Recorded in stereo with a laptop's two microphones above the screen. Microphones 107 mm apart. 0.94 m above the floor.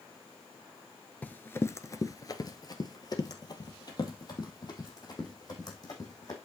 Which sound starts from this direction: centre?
Running footsteps, at 1.2 s.